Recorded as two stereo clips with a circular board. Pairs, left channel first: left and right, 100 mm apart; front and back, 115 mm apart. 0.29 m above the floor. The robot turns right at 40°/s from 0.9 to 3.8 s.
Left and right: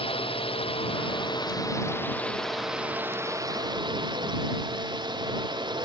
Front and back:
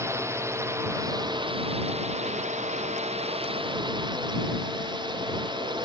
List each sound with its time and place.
0.0 s a drone: 115° left; by 5.8 s 130° right